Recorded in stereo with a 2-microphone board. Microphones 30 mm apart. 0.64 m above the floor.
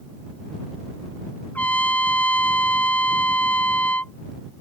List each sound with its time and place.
1.6 s a trumpet: 85° left